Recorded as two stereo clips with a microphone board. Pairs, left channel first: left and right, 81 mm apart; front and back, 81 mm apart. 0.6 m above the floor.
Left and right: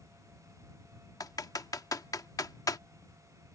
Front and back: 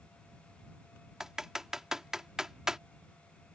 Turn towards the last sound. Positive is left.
turn(degrees=100)